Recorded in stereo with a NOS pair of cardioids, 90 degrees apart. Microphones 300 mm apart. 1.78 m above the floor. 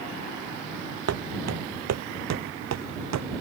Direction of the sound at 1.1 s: 60° right.